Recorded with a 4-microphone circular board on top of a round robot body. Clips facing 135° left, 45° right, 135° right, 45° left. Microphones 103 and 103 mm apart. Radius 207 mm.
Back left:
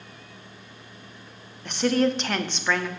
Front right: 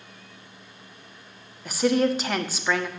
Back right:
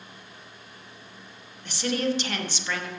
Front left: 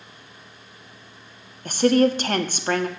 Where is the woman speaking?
40° left, 1.7 m.